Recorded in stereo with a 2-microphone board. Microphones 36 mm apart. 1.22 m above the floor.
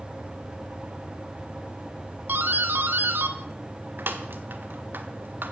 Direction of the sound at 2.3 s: 70° right (ahead or behind).